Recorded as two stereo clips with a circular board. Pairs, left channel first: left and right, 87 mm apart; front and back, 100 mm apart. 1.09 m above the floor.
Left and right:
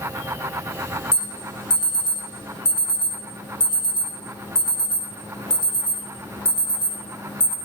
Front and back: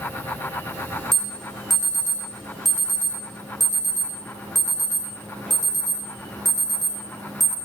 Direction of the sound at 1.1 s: 90° left.